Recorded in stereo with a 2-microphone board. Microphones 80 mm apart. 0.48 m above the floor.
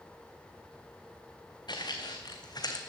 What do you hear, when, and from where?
1.7 s footsteps: 65° left (ahead or behind), 2 m; by 2.8 s 55° left (ahead or behind), 1.5 m